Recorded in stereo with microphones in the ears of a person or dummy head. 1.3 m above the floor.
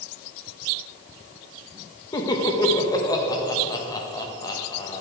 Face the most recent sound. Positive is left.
turn(degrees=25)  # may be behind; listen again after turning